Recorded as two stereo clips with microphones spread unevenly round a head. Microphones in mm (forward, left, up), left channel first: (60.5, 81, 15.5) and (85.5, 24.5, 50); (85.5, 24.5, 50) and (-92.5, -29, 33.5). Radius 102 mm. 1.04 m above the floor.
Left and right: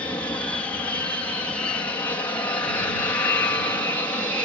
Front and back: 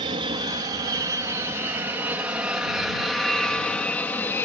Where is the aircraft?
140° left; by 4.5 s 95° left.